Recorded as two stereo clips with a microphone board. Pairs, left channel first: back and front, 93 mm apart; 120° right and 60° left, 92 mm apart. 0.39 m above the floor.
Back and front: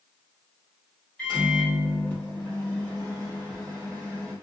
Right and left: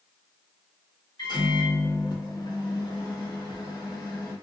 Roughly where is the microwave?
Right.